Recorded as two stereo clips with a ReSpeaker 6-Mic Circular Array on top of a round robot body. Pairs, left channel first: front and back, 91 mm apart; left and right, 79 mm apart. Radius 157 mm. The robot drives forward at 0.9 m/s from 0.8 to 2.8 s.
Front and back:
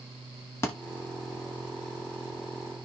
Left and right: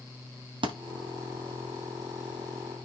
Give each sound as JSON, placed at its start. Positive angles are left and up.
{"t": 0.6, "sound": "a thud", "azimuth_deg": -65, "distance_m": 1.0}